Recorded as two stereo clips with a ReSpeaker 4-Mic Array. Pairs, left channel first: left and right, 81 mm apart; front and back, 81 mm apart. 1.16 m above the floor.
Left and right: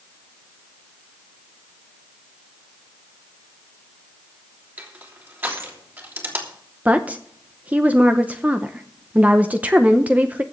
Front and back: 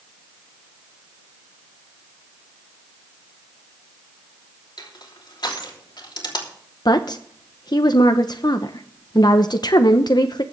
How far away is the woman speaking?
About 0.8 m.